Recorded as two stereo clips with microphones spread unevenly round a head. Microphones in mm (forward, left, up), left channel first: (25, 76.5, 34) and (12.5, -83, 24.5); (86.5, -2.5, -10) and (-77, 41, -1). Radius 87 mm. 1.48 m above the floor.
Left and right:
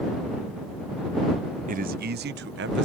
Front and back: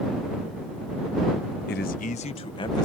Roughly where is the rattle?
I don't hear a rattle.